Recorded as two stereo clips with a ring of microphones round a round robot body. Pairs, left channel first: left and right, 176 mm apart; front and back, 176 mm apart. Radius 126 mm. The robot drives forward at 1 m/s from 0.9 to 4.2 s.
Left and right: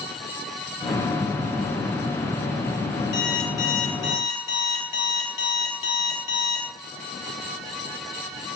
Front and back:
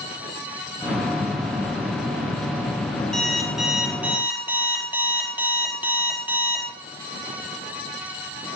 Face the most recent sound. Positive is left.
turn(degrees=100)